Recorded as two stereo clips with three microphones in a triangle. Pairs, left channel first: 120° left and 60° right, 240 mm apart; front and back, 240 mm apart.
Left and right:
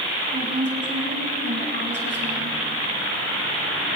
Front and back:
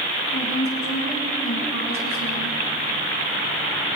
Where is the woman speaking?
20° right, 6 m.